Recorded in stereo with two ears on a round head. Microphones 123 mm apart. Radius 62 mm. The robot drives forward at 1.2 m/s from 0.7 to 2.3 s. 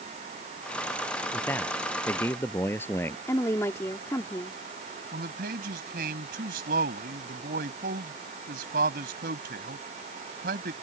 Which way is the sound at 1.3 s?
15° left (ahead or behind).